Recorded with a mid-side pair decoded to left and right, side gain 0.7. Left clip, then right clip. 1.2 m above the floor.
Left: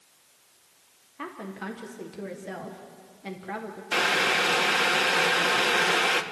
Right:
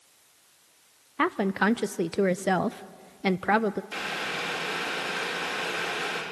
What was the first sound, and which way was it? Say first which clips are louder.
A woman speaking: right 12 dB; 55° right.